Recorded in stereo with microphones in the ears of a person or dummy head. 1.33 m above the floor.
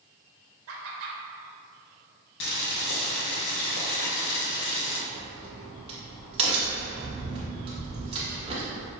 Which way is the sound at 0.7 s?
65° right (ahead or behind).